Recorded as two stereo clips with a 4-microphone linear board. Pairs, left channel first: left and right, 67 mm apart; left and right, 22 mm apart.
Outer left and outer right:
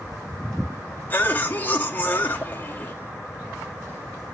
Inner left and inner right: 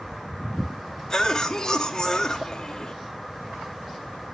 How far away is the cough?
About 1.8 m.